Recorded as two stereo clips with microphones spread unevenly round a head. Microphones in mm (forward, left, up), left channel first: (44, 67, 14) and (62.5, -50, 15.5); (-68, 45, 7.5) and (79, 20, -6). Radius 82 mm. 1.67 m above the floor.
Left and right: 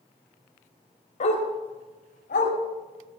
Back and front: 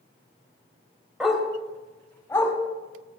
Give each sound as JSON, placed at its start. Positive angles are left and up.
{"t": 1.2, "sound": "a dog barking", "azimuth_deg": 80, "distance_m": 3.0}